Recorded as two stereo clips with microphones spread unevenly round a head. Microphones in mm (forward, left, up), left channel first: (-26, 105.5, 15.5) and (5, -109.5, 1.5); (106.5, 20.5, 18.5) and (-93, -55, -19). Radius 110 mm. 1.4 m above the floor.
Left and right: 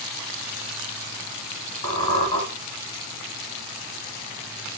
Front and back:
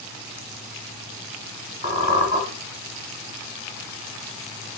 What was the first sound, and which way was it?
A squeak, 130° left.